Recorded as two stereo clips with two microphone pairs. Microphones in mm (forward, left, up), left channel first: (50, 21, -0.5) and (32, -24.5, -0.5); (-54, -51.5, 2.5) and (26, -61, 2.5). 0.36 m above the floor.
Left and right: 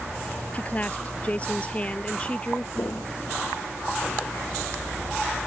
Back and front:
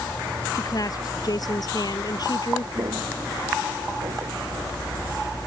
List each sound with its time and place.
0.5 s a woman speaking: 130° left; by 2.6 s 135° left
2.8 s footsteps: 35° left; by 4.4 s 15° left